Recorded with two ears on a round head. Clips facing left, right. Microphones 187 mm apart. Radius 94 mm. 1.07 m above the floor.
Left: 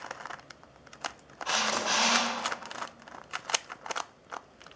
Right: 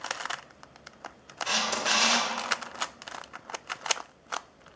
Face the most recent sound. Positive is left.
turn(degrees=-30)  # may be behind; listen again after turning